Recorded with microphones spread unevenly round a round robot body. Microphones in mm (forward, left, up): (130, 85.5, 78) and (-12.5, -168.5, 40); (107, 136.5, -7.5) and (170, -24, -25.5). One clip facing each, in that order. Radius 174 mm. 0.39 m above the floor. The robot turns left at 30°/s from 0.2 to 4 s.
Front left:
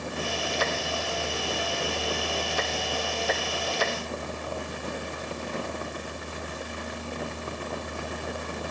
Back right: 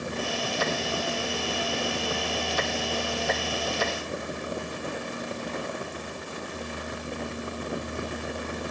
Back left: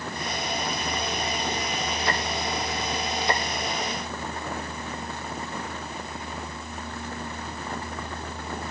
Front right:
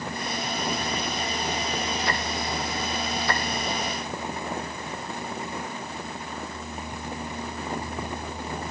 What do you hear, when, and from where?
Only background noise.